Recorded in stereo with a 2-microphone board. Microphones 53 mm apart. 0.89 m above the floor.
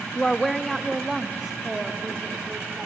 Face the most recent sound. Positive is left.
turn(degrees=-15)  # may be behind; listen again after turning